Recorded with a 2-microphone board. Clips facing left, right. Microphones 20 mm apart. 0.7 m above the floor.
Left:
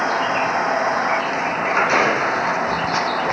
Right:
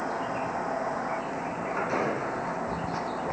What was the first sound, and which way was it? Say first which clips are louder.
A vehicle: left 11 dB; 75° left (ahead or behind).